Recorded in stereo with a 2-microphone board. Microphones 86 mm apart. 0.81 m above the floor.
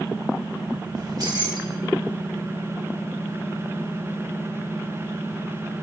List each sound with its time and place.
0.9 s keys jangling: 50° right (ahead or behind), 2 m